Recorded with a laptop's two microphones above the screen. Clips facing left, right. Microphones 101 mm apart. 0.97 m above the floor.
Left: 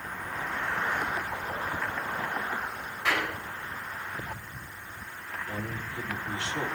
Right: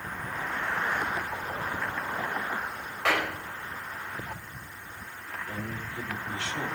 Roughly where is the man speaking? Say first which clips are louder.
Left 1 dB; left.